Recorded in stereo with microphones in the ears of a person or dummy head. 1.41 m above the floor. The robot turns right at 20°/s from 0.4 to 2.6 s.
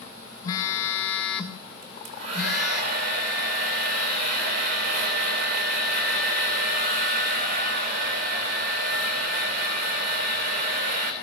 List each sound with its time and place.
0.4 s a phone buzzing: 155° left, 1.4 m; by 2.8 s 160° right, 1.4 m
1.8 s a hair dryer: 50° right (ahead or behind), 4 m; by 11.1 s 65° right (ahead or behind), 4 m